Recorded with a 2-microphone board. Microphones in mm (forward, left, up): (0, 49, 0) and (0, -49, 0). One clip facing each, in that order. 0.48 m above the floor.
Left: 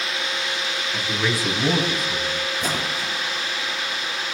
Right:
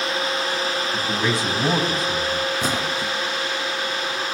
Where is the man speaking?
15° right (ahead or behind), 4 m; by 2.5 s 40° right (ahead or behind), 3 m.